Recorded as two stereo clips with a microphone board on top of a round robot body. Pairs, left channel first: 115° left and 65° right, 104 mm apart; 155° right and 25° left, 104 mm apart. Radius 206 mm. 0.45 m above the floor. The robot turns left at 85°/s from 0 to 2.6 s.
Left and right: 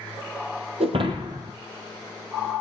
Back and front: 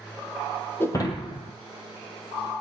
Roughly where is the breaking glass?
Right.